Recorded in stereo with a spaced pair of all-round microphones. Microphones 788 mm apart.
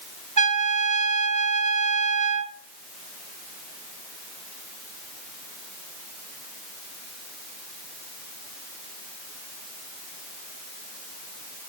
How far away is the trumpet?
About 0.5 m.